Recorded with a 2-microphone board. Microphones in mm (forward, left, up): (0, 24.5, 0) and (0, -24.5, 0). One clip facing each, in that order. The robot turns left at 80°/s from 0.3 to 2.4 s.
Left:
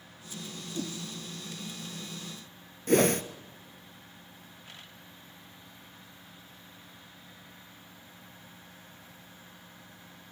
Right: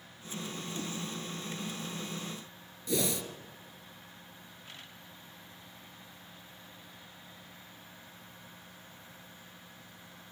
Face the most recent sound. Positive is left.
turn(degrees=60)  # may be behind; listen again after turning